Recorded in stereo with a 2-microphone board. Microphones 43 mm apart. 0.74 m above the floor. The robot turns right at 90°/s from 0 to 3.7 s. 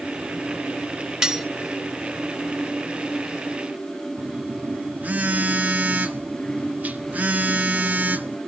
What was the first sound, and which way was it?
Cutlery clinking, 15° right (ahead or behind).